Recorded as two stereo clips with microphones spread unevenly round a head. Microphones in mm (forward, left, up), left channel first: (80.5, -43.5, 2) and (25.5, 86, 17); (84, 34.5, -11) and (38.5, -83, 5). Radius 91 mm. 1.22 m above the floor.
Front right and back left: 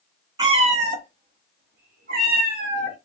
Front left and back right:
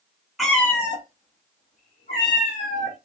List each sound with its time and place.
0.4 s a cat meowing: 165° left, 0.5 m; by 3.0 s 120° left, 2 m